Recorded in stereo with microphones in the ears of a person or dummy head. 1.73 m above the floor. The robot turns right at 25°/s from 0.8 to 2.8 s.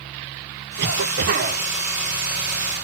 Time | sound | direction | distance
0.8 | a cough | 65° right (ahead or behind) | 1.3 m